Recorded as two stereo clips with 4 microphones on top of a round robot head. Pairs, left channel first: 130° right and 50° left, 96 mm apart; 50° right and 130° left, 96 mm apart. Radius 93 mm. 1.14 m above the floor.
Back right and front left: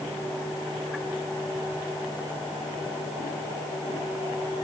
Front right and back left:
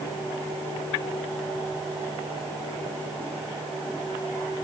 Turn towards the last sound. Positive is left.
No sound to turn to.